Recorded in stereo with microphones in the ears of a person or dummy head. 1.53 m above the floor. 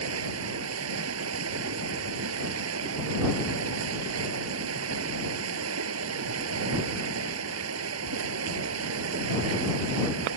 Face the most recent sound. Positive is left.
turn(degrees=-75)  # may be behind; listen again after turning